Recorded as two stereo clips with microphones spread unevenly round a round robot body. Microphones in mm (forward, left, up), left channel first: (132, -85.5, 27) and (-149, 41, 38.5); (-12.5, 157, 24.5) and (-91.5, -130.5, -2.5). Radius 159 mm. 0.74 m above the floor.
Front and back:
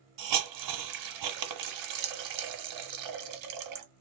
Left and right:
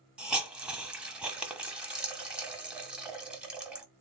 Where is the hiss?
165° left, 0.9 m.